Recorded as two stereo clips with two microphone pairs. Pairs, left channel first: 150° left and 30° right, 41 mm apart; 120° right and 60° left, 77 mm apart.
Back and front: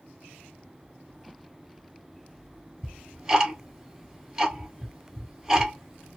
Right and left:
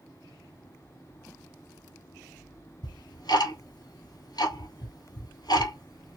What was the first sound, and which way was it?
Ticking, 100° right.